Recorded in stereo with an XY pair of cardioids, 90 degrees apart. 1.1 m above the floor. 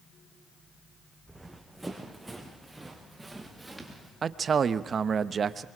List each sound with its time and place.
1.3 s running footsteps: 10° right, 3.5 m
4.2 s a man speaking: 50° right, 0.8 m